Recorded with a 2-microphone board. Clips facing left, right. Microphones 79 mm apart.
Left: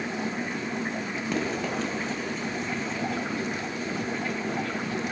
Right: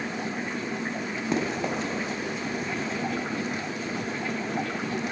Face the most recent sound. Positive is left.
turn(degrees=-5)  # may be behind; listen again after turning